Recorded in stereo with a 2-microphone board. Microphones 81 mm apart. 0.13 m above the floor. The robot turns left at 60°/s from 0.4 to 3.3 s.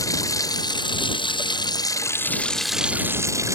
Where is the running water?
135° left; by 3.5 s 35° right.